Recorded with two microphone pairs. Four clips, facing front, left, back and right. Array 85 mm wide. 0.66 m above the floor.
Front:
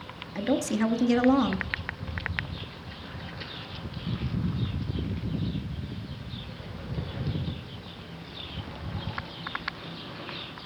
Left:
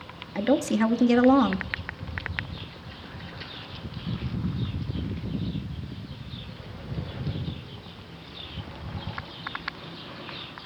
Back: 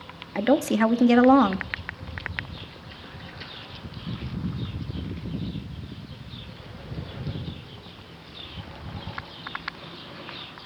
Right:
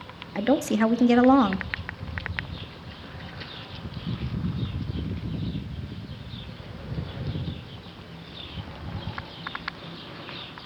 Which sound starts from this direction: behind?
A woman speaking, at 0.3 s.